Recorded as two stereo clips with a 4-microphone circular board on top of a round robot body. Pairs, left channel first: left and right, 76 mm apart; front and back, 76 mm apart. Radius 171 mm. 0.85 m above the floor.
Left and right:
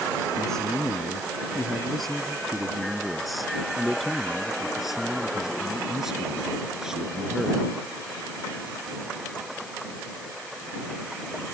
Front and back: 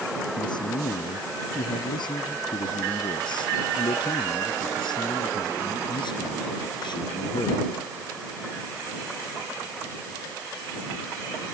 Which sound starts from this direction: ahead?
A man speaking, at 0.4 s.